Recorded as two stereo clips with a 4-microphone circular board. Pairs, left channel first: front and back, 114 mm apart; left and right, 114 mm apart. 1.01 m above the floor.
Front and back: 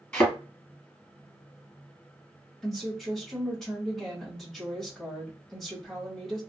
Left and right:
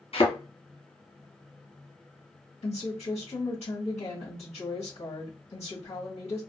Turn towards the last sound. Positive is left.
turn(degrees=85)